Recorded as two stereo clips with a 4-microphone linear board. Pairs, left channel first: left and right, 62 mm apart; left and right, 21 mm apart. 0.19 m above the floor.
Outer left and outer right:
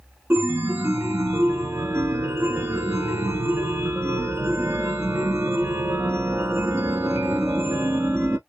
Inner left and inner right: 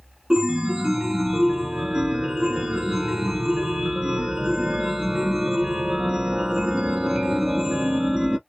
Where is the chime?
45° right (ahead or behind), 0.7 m.